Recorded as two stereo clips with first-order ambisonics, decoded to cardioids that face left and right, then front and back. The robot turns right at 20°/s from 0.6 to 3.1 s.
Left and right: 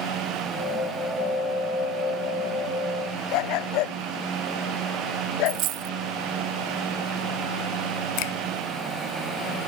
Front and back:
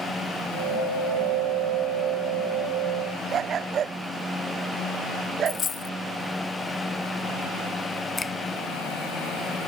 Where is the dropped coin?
65° right.